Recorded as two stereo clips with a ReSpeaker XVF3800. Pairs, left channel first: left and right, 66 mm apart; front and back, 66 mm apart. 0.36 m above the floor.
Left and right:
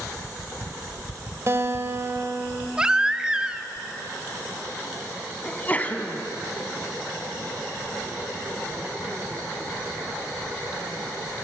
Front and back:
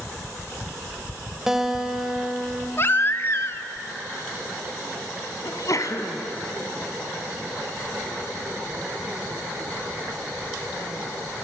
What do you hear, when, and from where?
1.5 s a guitar: 100° right, 1.6 m
2.8 s a baby crying: 20° right, 1.0 m
5.4 s a sneeze: 25° left, 2.5 m